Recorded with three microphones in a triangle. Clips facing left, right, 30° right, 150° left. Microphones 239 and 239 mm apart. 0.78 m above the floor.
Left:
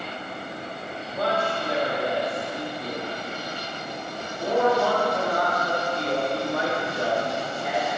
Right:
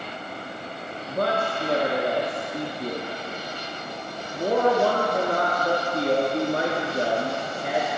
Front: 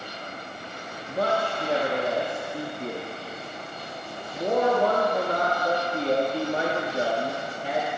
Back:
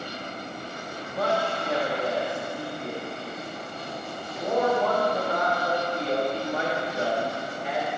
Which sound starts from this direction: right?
A man speaking, at 1.1 s.